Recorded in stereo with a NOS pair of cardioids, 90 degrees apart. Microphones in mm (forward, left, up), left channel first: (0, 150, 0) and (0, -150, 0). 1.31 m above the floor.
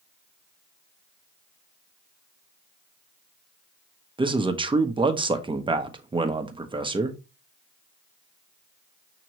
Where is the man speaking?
20° right, 0.9 m.